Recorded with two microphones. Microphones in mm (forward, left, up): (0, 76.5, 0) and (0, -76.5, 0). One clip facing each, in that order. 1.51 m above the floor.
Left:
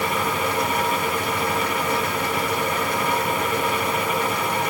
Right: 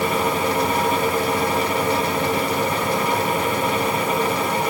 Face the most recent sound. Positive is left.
No sound to turn to.